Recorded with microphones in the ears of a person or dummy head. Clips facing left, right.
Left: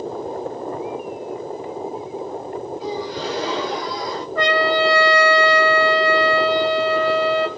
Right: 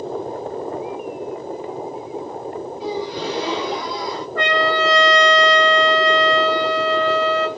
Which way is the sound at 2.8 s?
10° right (ahead or behind).